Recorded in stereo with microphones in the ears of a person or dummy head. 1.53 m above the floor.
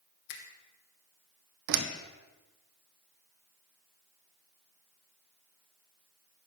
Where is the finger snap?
70° left (ahead or behind), 1.2 m.